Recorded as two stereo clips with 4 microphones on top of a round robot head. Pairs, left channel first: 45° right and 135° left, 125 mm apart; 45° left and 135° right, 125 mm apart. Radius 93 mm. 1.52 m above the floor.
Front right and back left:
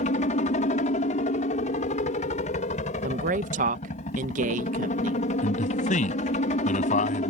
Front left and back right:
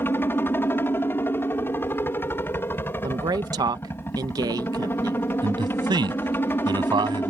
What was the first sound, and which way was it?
A helicopter, 25° right.